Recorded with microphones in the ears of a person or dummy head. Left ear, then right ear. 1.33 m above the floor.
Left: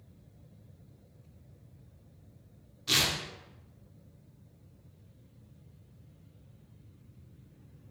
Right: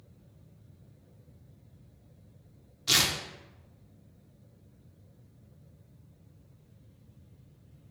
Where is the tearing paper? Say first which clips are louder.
Right 2 dB; 10° right (ahead or behind), 0.6 m.